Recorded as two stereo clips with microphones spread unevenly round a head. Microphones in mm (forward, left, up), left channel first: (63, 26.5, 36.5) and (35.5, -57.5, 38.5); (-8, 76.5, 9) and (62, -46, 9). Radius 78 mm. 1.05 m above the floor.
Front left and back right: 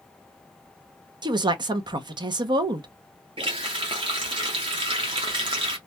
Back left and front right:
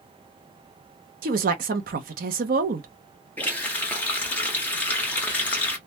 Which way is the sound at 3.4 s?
160° right.